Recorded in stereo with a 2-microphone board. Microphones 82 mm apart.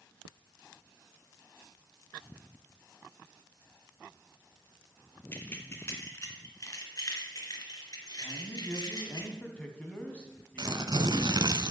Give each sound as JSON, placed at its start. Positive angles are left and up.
{"t": 5.3, "sound": "keys jangling", "side_deg": 25, "distance_m": 1.8}
{"t": 8.2, "sound": "a man speaking", "side_deg": 15, "distance_m": 2.5}
{"t": 10.6, "sound": "tearing paper", "side_deg": -60, "distance_m": 0.7}